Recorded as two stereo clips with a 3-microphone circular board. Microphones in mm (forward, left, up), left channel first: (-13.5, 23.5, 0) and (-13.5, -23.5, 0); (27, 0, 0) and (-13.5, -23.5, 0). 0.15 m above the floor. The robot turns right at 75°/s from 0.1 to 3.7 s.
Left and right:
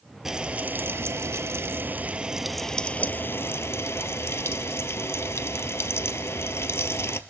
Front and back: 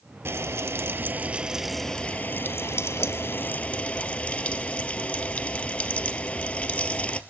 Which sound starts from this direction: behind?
Frying, at 0.2 s.